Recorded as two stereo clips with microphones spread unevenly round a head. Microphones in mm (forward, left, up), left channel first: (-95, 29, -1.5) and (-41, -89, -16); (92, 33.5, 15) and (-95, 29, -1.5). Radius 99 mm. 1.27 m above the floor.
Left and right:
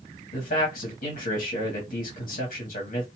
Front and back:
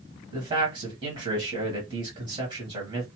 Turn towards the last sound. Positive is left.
turn(degrees=125)